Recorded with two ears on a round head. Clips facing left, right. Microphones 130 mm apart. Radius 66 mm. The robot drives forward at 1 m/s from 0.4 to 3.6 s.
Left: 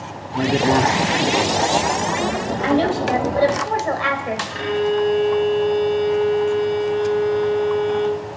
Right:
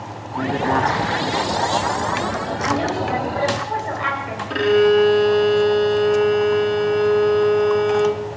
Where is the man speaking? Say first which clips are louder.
Left 3 dB; 20° left (ahead or behind), 1.0 m; by 2.1 s 15° left (ahead or behind), 1.5 m.